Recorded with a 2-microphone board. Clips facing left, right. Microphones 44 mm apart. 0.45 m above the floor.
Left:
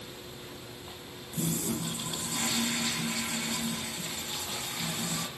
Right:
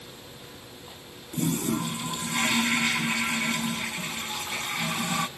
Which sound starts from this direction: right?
A toilet flushing, at 1.3 s.